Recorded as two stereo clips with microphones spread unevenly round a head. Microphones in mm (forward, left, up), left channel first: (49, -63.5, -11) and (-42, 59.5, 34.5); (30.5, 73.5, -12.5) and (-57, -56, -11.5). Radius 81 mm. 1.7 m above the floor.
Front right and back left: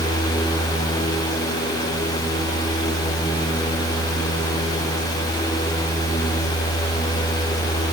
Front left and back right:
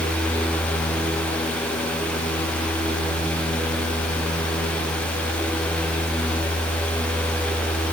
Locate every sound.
Only background noise.